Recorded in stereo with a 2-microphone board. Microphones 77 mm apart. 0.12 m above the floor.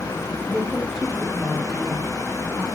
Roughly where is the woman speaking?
Centre.